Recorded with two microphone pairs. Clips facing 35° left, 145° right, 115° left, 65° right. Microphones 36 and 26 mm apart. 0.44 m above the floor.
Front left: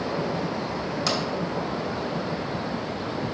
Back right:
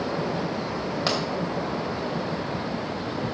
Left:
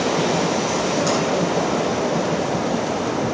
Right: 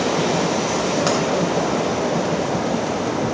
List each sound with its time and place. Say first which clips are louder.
1.1 s a pop: back right 1 dB, right 2 dB; 85° right, 2 m